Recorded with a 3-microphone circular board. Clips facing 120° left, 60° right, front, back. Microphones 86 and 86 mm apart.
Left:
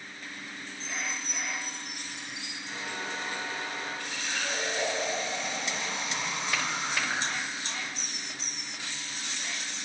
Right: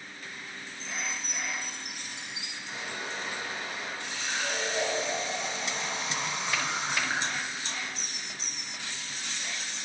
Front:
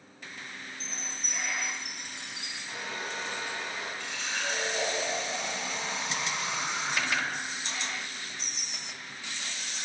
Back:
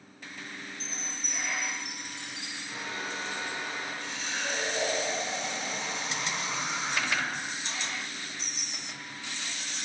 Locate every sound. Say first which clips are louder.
0.8 s a chime: even, back 1 dB; 10° left, 1.8 m
2.7 s a hair dryer: left 1 dB, even; 15° left, 4 m
4.0 s a running tap: right 1 dB, even; 5° left, 3 m